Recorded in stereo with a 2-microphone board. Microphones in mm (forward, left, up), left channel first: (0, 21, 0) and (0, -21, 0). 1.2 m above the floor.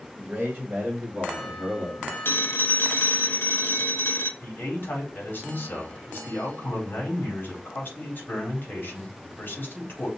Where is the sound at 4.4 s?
45° left (ahead or behind), 4 m.